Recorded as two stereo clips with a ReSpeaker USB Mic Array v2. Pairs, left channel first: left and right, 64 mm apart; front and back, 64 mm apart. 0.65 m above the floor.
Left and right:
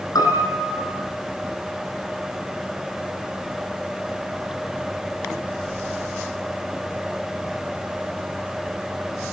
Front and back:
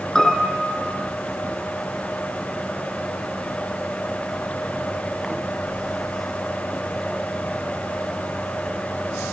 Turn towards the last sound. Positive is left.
turn(degrees=85)